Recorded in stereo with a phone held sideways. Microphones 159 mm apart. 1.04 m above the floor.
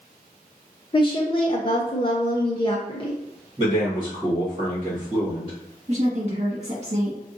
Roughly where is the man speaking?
Right.